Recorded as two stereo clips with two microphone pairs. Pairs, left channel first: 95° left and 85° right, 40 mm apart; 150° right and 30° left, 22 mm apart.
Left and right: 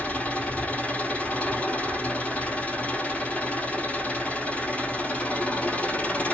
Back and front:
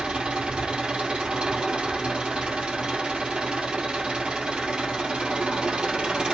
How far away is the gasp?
I don't hear a gasp.